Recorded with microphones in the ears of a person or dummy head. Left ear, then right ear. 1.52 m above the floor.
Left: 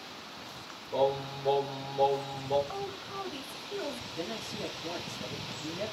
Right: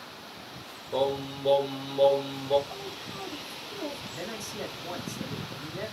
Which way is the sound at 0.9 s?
40° right (ahead or behind).